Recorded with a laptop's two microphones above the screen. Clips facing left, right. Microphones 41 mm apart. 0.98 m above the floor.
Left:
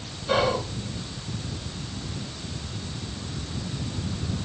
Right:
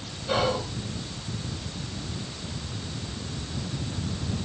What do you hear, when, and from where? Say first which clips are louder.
0.3 s whispering: left 2 dB; 20° left (ahead or behind), 0.6 m